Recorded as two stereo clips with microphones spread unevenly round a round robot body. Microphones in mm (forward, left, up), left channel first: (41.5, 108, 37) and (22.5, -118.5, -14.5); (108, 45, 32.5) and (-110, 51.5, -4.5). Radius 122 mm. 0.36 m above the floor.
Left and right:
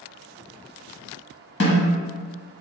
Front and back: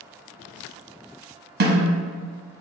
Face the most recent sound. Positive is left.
turn(degrees=135)